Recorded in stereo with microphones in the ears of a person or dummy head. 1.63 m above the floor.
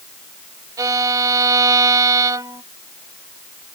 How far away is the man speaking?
I don't hear a man speaking.